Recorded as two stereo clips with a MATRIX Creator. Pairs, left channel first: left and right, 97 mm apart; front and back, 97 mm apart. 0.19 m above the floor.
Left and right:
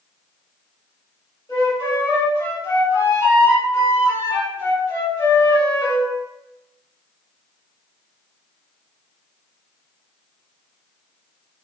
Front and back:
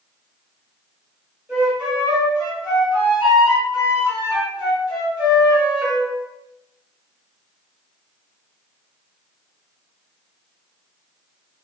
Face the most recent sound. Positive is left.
turn(degrees=105)